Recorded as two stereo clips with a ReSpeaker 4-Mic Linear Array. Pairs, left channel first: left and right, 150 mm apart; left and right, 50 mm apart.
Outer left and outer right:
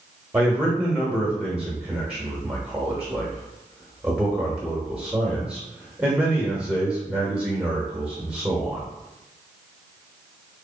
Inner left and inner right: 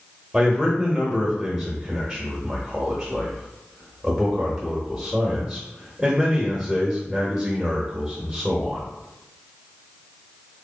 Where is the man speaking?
10° right (ahead or behind), 0.9 m.